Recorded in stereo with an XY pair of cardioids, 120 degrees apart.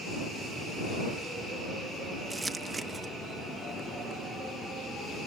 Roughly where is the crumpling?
Ahead.